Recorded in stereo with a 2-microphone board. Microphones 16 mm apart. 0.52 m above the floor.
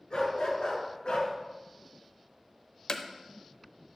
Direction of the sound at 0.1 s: 60° left (ahead or behind).